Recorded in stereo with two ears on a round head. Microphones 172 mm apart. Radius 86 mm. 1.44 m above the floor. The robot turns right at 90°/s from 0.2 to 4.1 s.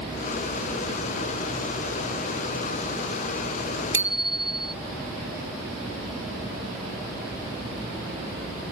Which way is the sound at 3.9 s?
15° right (ahead or behind).